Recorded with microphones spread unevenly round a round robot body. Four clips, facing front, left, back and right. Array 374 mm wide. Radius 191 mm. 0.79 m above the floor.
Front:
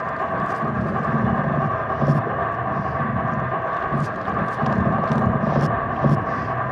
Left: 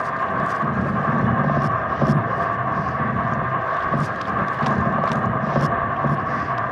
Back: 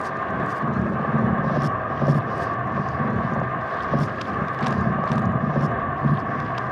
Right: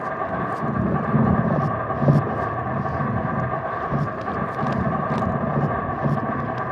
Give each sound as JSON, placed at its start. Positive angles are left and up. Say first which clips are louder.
{"t": 0.0, "sound": "an insect", "louder": "left 3 dB, front 2 dB", "azimuth_deg": -35, "distance_m": 2.5}